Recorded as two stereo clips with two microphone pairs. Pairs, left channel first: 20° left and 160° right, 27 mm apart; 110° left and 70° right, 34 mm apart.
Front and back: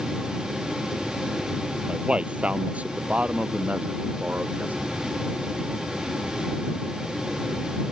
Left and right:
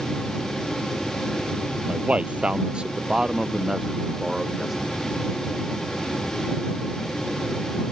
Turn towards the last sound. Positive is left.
turn(degrees=-155)